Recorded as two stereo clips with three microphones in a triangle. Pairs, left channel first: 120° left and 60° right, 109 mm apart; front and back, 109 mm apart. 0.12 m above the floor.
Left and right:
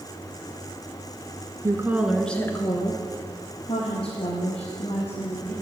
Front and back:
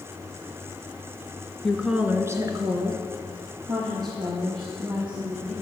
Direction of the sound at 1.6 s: 85° right.